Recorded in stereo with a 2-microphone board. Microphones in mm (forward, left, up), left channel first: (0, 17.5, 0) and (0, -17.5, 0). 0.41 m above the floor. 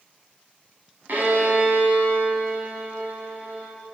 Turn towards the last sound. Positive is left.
turn(degrees=-60)  # may be behind; listen again after turning